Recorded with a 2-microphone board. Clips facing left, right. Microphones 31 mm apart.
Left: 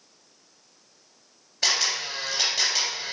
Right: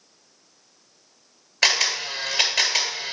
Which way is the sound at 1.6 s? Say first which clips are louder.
Right 4 dB; 80° right.